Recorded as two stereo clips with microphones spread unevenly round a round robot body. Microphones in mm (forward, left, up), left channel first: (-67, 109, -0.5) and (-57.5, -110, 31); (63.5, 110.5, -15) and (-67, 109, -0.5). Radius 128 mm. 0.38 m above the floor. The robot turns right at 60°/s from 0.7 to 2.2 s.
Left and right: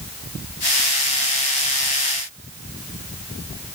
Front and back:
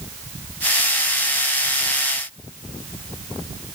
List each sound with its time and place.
Only background noise.